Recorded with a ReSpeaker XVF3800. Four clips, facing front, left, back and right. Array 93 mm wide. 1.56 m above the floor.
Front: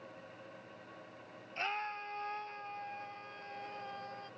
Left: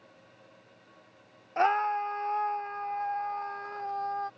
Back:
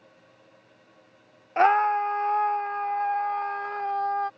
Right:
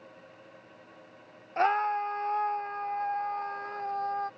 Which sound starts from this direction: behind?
A scream, at 1.6 s.